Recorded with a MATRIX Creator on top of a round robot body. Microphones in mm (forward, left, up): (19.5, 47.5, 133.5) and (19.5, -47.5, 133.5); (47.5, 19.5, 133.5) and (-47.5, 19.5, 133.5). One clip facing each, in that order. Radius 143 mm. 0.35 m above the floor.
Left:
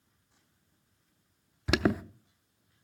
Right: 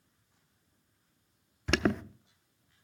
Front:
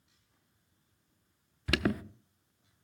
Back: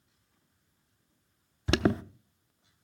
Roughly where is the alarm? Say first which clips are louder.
Left 1 dB, back 5 dB; behind.